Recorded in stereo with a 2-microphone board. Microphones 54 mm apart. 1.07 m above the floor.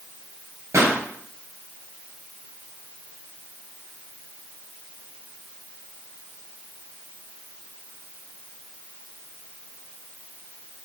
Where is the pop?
60° right (ahead or behind), 4 m.